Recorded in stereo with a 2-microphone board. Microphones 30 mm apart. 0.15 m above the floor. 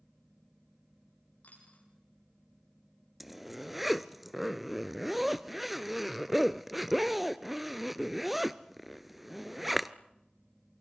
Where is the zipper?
5° right (ahead or behind), 0.7 m.